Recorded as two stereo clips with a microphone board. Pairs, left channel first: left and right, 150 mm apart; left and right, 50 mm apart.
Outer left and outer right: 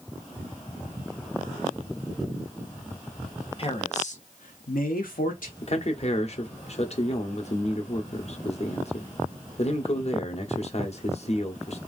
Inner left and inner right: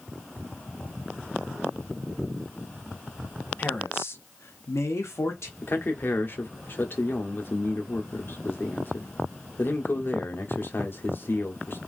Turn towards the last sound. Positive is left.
turn(degrees=50)  # may be behind; listen again after turning